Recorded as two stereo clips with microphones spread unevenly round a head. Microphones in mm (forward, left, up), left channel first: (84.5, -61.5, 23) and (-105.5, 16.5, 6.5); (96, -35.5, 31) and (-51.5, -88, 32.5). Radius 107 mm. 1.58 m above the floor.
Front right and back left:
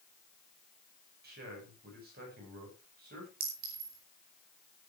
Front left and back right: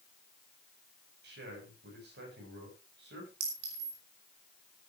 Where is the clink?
155° right, 5.5 m.